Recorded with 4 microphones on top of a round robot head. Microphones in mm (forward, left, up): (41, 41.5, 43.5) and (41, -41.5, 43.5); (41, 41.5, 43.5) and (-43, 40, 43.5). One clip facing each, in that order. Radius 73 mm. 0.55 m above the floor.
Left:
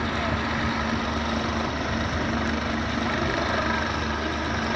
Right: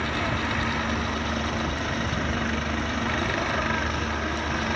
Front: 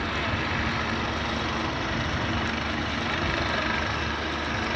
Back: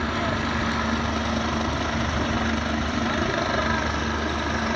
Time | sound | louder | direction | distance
0.0 | a helicopter | left 1 dB, back 3 dB | 155° left | ?